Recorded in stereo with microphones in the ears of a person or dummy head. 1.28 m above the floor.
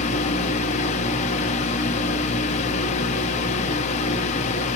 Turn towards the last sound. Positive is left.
turn(degrees=40)  # may be behind; listen again after turning